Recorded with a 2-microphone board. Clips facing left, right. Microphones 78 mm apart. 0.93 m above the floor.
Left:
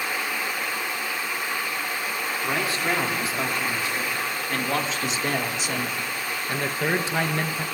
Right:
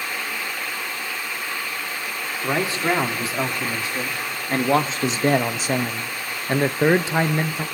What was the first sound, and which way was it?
A man speaking, 30° right (ahead or behind).